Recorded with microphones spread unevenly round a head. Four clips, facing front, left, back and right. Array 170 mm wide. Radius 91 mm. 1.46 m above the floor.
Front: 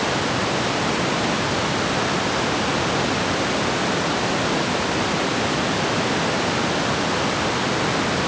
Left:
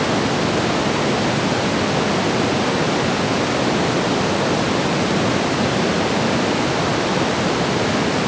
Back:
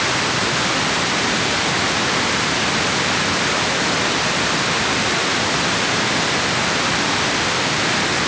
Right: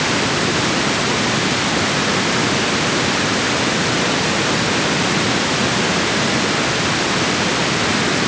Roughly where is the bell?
No bell in this recording.